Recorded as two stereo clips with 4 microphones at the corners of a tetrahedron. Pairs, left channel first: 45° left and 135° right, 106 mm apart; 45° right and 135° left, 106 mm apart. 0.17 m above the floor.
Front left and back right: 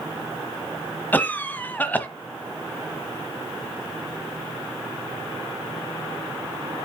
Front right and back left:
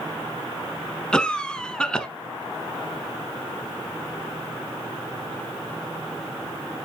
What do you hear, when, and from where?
1.1 s a cough: 15° left, 1.1 m